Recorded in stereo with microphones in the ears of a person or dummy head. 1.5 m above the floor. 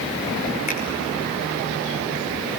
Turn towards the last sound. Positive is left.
turn(degrees=40)  # may be behind; listen again after turning